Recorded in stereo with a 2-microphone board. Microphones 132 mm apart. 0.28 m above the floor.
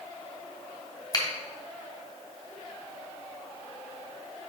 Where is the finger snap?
30° left (ahead or behind), 1.7 m.